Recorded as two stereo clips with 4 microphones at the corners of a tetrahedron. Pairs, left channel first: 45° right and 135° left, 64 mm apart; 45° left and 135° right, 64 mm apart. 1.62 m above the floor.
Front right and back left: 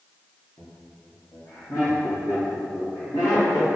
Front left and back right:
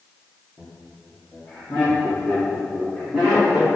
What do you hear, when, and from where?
0.6 s laughter: 25° right, 1.6 m; by 3.7 s 60° right, 3.5 m